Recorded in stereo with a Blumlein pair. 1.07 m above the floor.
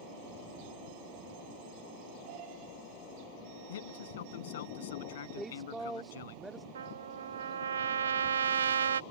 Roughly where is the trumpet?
Ahead right.